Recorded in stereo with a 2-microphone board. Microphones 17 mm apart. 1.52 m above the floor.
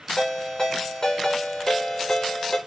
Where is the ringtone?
50° left (ahead or behind), 0.9 m.